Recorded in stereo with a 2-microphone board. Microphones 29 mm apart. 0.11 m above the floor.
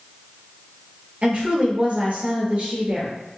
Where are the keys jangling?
No keys jangling in this recording.